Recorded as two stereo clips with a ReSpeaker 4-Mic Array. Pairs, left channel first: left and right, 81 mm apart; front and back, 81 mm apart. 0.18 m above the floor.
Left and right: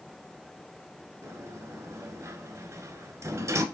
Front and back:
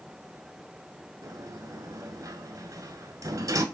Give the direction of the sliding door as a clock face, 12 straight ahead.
5 o'clock.